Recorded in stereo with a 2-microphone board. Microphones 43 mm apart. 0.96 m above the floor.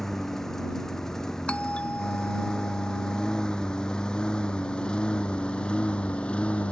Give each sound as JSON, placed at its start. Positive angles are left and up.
{"t": 0.0, "sound": "a lawn mower", "side_deg": 10}
{"t": 1.5, "sound": "a doorbell", "side_deg": 30}